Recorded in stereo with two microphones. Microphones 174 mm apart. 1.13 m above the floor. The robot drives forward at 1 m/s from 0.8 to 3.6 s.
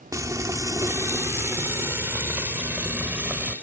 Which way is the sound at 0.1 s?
20° right (ahead or behind).